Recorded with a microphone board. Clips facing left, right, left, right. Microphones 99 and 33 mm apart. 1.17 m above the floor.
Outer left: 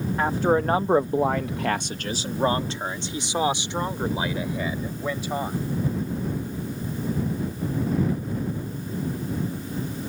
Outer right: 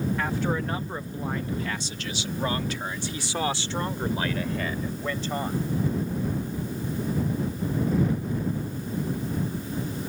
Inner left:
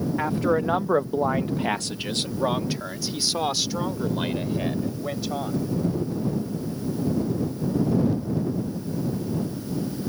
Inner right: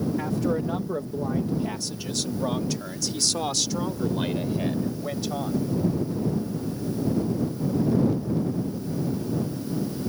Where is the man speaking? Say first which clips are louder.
Outer left 6 dB, inner left 3 dB; 30° left (ahead or behind); by 5.6 s 10° left (ahead or behind).